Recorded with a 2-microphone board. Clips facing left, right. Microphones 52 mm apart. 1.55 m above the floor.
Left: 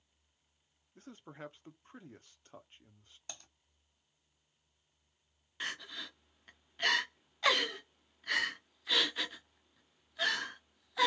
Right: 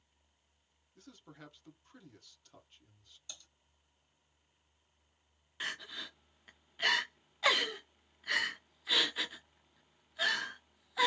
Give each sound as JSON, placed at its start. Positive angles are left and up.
{"t": 0.9, "sound": "a man speaking", "side_deg": 30, "distance_m": 0.8}
{"t": 3.3, "sound": "typing on a keyboard", "side_deg": 55, "distance_m": 2.5}
{"t": 5.6, "sound": "crying", "side_deg": 0, "distance_m": 0.7}